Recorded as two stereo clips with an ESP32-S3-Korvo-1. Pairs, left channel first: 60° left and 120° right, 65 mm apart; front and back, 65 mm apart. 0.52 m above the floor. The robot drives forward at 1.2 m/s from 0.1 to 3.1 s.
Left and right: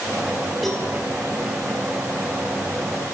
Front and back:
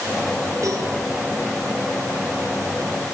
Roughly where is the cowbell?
Behind left.